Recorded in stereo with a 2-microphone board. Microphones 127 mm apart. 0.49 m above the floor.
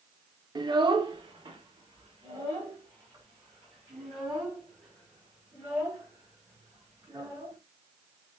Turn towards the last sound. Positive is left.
turn(degrees=-30)  # may be behind; listen again after turning